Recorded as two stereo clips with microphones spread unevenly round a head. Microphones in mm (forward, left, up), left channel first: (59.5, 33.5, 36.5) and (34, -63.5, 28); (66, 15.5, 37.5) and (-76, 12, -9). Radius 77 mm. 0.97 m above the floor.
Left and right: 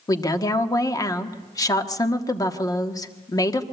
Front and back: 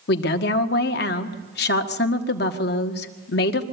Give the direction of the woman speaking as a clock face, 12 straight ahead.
11 o'clock.